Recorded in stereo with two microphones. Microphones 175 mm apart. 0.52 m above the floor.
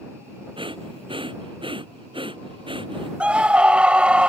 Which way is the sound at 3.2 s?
5° right (ahead or behind).